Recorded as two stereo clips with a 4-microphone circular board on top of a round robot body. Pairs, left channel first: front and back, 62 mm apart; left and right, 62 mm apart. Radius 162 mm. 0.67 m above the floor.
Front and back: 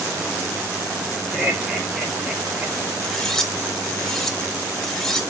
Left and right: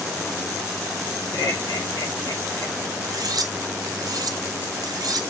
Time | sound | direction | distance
1.3 | laughter | 80° left | 1.8 m
3.0 | cutlery clinking | 80° right | 0.8 m